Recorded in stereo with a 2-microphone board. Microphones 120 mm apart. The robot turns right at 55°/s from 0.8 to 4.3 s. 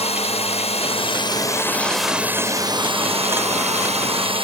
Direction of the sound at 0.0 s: 115° left.